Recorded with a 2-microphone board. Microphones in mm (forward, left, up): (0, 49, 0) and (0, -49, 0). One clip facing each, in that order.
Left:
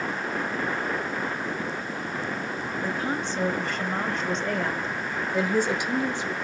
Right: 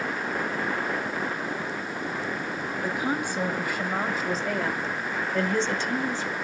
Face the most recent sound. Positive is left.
turn(degrees=20)  # may be behind; listen again after turning